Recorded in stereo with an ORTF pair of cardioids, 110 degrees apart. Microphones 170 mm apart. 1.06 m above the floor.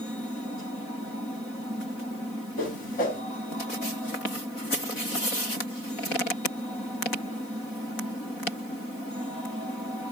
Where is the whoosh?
60° left, 1.2 m.